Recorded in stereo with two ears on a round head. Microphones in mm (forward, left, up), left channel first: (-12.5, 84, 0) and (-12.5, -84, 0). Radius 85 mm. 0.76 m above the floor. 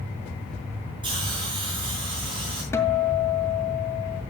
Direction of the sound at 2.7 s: 15° left (ahead or behind).